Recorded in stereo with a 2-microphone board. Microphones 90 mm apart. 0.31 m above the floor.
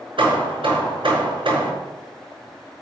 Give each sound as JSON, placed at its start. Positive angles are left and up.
{"t": 0.2, "sound": "hammering", "side_deg": -75, "distance_m": 4.0}